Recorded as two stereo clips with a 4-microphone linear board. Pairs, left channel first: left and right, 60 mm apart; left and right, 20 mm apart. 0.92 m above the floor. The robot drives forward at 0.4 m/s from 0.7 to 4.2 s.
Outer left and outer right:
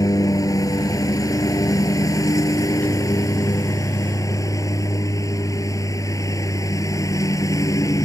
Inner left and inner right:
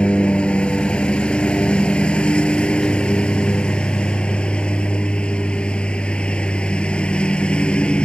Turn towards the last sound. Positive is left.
turn(degrees=70)  # may be behind; listen again after turning